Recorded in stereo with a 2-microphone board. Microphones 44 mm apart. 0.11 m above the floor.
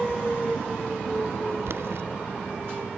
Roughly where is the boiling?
Right.